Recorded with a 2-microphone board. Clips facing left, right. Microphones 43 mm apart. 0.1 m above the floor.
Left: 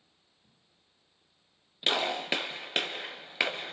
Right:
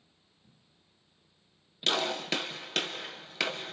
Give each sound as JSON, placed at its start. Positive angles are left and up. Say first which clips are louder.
{"t": 1.9, "sound": "a gunshot", "louder": "left 1 dB", "side_deg": 25, "distance_m": 1.4}